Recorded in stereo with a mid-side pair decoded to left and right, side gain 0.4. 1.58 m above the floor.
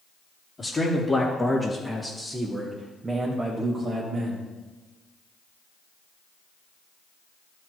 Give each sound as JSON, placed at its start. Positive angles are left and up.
{"t": 0.6, "sound": "a man speaking", "azimuth_deg": 25, "distance_m": 2.5}